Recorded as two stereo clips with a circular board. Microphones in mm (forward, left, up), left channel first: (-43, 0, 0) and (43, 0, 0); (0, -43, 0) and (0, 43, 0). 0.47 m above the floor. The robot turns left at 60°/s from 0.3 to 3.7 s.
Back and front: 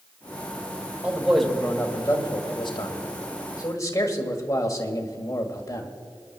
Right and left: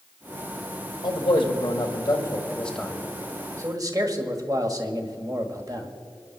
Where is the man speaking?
70° right, 1.7 m; by 5.9 s 130° left, 1.7 m.